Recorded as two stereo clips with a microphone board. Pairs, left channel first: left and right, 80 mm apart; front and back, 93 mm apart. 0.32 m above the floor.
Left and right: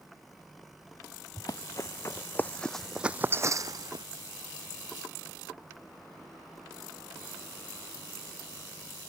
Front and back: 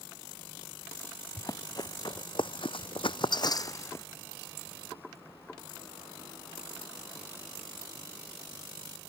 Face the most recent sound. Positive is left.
turn(degrees=-60)